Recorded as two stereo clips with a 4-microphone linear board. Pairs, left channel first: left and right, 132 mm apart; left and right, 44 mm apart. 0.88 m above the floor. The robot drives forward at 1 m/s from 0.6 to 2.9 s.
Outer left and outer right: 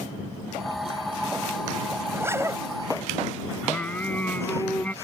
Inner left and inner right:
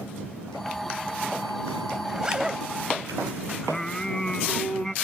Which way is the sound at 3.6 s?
15° left (ahead or behind).